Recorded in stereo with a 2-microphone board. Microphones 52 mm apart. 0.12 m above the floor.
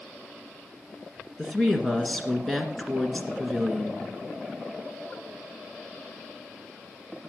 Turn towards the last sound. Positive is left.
turn(degrees=5)  # may be behind; listen again after turning